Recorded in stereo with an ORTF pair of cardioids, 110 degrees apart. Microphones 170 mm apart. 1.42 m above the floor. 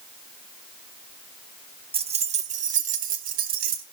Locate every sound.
1.9 s keys jangling: 35° right, 1.3 m; by 3.8 s 60° right, 2 m